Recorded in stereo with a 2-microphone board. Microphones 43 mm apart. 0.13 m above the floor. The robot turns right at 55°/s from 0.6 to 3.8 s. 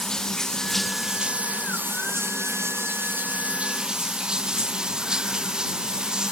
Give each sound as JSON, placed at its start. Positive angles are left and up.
{"t": 0.0, "sound": "running water", "azimuth_deg": 165}